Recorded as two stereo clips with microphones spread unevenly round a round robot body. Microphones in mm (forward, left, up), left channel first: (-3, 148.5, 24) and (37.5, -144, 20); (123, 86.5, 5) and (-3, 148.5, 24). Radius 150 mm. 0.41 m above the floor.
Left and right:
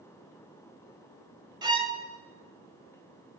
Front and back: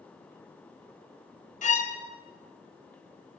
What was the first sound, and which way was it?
A violin, 5° right.